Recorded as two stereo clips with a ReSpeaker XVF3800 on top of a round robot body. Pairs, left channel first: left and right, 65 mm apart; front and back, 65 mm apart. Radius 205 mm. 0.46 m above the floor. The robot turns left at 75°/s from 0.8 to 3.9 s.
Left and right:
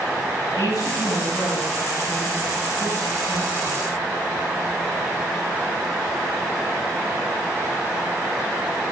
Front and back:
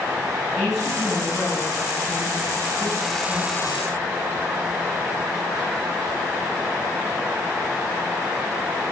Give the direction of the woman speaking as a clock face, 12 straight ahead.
9 o'clock.